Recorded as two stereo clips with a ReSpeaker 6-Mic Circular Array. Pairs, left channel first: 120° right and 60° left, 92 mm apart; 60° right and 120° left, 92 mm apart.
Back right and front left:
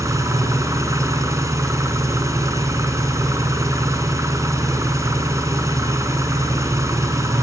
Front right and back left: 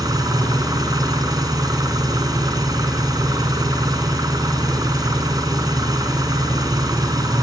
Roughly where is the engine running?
Left.